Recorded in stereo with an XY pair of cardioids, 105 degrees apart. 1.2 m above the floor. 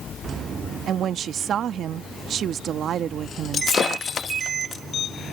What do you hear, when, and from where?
0.9 s a woman speaking: 60° right
3.5 s breaking glass: 45° left